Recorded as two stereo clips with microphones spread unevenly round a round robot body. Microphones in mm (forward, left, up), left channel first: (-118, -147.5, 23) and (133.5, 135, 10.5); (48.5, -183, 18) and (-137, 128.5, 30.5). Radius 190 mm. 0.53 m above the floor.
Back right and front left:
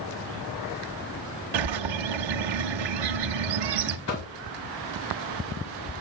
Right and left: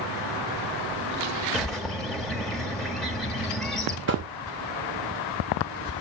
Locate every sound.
1.5 s a bird: 30° left, 1.1 m
4.1 s knocking: straight behind, 2.5 m